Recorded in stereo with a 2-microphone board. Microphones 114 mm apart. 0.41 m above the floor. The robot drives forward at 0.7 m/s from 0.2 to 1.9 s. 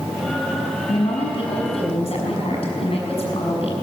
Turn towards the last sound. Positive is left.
turn(degrees=60)  # may be behind; listen again after turning